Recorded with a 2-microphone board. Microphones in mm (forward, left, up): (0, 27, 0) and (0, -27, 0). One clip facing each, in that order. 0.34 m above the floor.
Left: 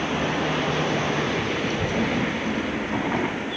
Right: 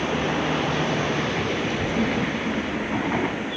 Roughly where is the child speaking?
Left.